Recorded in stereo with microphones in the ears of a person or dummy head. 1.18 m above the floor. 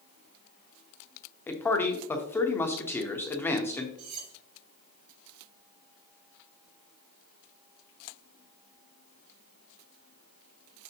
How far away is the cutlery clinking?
About 4.5 m.